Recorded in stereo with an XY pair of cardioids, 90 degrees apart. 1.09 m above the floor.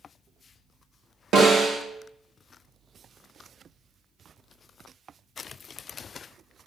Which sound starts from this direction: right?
A snare drum, at 1.3 s.